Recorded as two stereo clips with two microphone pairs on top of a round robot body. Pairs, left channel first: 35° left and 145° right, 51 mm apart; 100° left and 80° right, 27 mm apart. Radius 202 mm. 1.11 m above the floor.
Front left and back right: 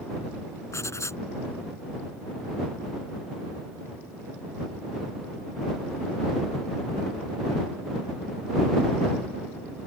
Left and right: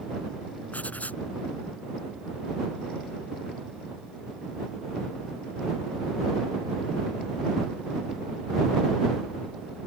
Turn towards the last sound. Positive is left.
turn(degrees=70)